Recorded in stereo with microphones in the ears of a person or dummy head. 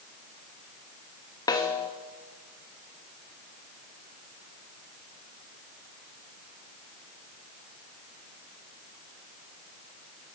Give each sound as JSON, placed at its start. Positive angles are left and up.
{"t": 1.5, "sound": "a snare drum", "side_deg": 20, "distance_m": 1.1}